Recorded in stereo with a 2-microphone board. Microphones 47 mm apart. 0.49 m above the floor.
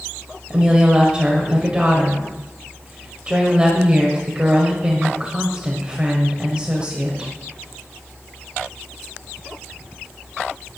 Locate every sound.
0.5 s a woman speaking: 15° right (ahead or behind), 1.8 m